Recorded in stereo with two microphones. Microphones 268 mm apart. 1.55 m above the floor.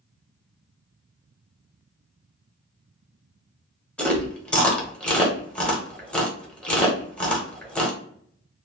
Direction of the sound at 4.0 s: 5° left (ahead or behind).